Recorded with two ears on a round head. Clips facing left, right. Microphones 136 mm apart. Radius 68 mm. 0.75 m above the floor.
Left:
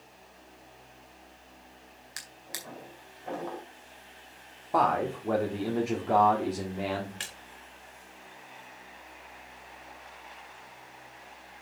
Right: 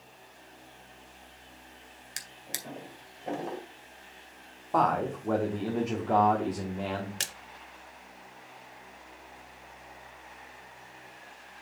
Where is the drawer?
30° right (ahead or behind), 2 m.